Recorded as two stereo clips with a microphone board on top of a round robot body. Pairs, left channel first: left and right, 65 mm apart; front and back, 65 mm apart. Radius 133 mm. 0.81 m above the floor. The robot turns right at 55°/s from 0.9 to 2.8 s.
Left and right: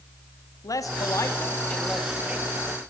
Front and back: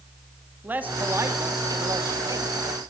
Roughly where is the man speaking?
Behind left.